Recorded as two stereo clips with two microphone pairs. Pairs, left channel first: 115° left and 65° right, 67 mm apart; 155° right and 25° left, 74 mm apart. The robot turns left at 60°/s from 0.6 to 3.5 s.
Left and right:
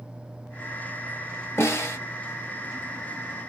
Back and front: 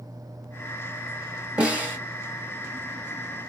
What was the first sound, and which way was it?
A snare drum, 90° left.